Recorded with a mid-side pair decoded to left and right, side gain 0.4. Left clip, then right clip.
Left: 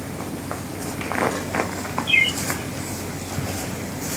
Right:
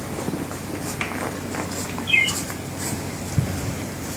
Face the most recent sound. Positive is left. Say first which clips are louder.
# left 1 dB
turn(degrees=10)